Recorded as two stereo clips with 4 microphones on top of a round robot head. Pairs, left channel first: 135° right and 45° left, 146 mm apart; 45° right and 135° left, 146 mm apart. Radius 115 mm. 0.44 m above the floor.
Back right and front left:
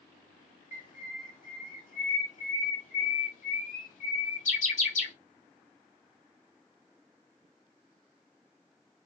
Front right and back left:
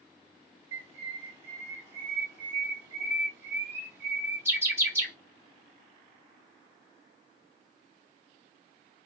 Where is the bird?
155° right, 2 m.